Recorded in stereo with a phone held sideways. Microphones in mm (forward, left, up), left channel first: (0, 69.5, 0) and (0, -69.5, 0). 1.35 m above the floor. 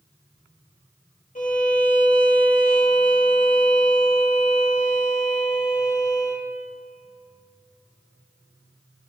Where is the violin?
65° left (ahead or behind), 2 m.